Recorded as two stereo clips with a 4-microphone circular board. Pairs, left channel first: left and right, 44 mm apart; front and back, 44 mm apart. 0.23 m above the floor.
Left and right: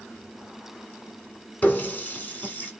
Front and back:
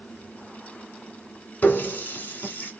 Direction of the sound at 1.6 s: 45° left.